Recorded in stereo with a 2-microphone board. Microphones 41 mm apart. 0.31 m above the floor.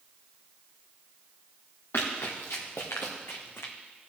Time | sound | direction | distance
1.9 | running footsteps | 80° left | 2.5 m